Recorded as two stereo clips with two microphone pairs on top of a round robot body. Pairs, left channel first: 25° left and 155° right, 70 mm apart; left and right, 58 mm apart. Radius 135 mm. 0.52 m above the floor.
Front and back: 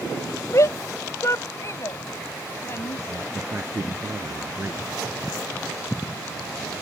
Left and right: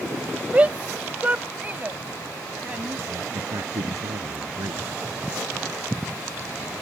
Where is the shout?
20° right; by 3.0 s 25° right.